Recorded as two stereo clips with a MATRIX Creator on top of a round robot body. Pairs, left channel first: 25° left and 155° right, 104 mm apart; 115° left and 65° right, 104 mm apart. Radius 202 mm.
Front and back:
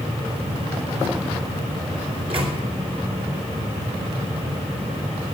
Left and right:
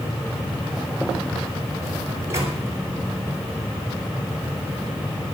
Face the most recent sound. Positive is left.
turn(degrees=-130)